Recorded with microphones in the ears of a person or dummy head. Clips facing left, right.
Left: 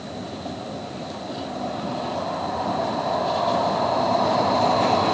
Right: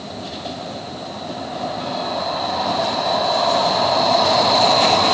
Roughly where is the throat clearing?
I don't hear throat clearing.